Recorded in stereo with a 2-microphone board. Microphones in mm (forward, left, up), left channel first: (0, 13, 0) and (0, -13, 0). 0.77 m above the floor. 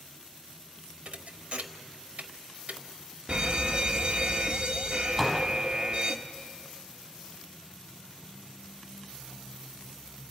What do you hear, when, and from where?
1.1 s a thud: 60° right (ahead or behind), 0.9 m
3.3 s an alarm: 40° right (ahead or behind), 0.8 m
5.2 s a door slam: 5° right (ahead or behind), 4 m